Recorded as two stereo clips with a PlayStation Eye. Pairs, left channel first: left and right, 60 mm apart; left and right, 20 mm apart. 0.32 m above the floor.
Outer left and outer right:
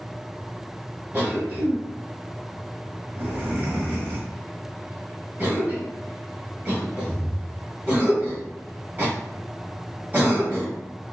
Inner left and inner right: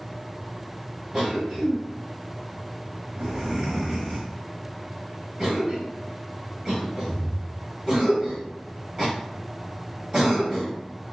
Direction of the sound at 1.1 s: 25° right (ahead or behind).